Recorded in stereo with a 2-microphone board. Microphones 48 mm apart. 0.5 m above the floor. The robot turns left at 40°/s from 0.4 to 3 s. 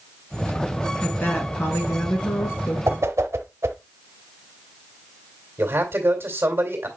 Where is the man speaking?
60° right (ahead or behind), 2.5 m.